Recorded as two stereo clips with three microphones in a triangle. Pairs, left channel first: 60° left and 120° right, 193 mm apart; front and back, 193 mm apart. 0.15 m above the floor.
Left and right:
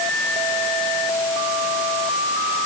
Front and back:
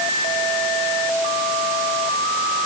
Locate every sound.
Only background noise.